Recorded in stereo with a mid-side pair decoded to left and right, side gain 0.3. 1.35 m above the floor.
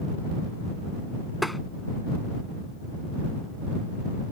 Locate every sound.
1.4 s tapping: 5° left